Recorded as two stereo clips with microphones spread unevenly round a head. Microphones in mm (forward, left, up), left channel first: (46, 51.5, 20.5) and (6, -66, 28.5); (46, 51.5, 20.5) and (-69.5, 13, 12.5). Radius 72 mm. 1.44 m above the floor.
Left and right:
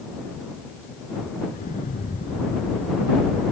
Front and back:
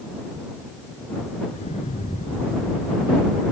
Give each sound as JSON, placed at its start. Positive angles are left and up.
{"t": 1.5, "sound": "an explosion", "azimuth_deg": 50}